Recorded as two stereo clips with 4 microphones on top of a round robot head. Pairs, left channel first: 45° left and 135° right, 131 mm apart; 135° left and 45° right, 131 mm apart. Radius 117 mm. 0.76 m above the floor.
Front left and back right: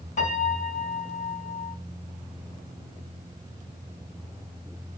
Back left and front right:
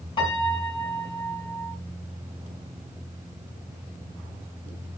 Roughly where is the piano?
Left.